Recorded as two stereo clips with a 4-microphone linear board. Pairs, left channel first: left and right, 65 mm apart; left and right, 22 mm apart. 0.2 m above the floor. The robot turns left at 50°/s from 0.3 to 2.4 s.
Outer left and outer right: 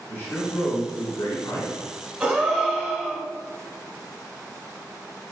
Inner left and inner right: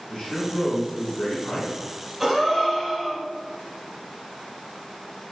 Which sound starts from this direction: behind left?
A man speaking, at 0.1 s.